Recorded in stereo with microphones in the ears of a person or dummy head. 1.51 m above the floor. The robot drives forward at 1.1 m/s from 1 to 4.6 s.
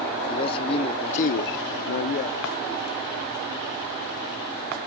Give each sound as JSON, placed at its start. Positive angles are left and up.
{"t": 0.3, "sound": "a man speaking", "side_deg": 30}